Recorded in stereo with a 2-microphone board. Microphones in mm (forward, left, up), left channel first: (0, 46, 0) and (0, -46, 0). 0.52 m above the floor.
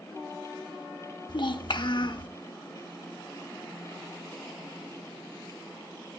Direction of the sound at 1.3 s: 55° left (ahead or behind).